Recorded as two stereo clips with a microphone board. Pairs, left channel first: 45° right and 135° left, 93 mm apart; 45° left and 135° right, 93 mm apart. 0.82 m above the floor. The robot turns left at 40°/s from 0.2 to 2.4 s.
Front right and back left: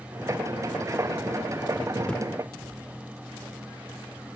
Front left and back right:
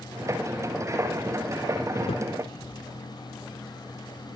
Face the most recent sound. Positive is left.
turn(degrees=20)